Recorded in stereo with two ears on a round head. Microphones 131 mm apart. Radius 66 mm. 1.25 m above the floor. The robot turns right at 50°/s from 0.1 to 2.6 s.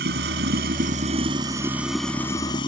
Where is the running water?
95° right; by 2.7 s 30° left.